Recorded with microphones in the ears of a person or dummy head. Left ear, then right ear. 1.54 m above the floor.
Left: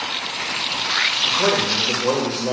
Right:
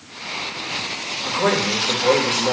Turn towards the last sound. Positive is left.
turn(degrees=-20)  # may be behind; listen again after turning